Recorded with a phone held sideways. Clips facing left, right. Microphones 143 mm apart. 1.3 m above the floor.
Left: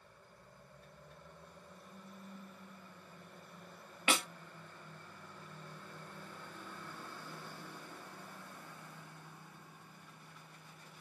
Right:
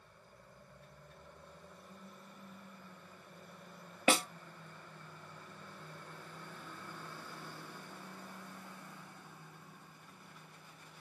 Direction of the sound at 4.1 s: 35° right (ahead or behind).